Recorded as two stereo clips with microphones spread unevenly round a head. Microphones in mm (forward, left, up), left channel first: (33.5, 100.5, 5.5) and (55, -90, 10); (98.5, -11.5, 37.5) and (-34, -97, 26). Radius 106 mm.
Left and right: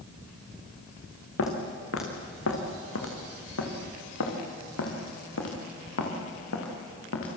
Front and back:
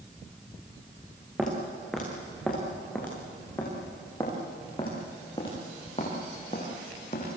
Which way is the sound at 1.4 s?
125° left.